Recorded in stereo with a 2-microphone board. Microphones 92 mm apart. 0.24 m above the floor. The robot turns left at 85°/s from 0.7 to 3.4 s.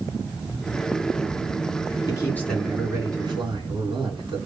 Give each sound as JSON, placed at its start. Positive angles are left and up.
{"t": 2.1, "sound": "a man speaking", "azimuth_deg": 45, "distance_m": 2.5}